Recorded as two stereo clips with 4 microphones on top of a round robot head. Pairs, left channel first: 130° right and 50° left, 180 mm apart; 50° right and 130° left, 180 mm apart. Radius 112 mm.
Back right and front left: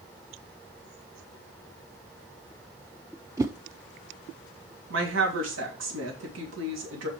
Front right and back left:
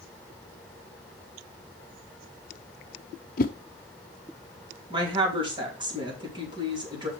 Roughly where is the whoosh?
Ahead.